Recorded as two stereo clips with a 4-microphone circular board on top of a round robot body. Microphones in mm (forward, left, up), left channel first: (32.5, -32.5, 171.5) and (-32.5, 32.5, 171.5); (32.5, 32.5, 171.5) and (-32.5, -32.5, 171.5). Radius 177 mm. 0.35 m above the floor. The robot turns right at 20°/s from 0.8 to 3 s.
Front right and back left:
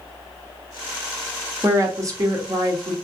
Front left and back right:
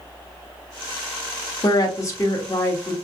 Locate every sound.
1.6 s a woman speaking: 85° left, 1.2 m; by 3.0 s 110° left, 1.2 m